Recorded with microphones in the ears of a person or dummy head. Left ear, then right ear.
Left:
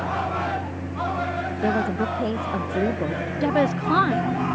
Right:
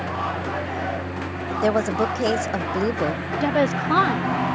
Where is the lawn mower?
40° right (ahead or behind); by 4.5 s 45° right (ahead or behind).